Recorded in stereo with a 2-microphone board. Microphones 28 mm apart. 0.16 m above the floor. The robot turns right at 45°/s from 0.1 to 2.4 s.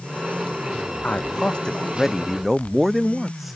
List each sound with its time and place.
1.0 s a man speaking: 125° left; by 3.6 s 175° right